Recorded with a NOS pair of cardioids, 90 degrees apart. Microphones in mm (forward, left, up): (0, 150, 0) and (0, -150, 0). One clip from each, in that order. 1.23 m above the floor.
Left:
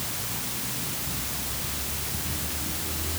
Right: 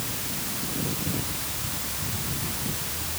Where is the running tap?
I don't hear a running tap.